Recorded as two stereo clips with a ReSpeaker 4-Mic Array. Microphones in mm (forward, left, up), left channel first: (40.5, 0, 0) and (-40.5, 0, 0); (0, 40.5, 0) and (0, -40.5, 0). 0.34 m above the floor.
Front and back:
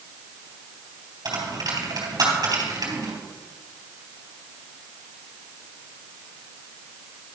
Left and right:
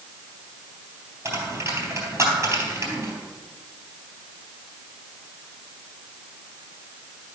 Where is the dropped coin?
140° right, 3 m.